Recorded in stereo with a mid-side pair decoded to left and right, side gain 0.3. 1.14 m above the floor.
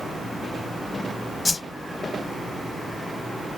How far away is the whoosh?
About 0.8 m.